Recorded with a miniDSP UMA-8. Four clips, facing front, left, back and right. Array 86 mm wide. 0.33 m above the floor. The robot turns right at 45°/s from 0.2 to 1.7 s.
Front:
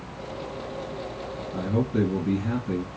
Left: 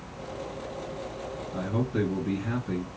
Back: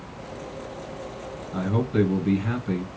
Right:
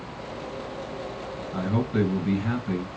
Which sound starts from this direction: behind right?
A man speaking, at 1.5 s.